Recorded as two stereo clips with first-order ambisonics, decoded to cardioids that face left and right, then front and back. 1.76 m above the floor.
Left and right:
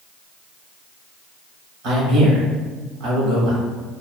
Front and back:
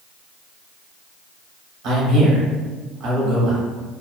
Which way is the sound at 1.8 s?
130° right.